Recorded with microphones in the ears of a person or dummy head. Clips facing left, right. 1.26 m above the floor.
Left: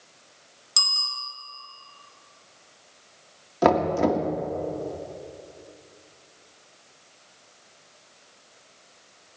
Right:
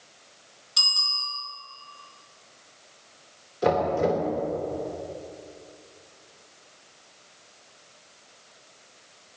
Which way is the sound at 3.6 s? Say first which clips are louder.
Left 2 dB; 75° left (ahead or behind).